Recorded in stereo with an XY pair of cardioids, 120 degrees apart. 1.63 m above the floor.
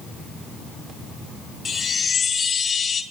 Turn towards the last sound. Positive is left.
turn(degrees=35)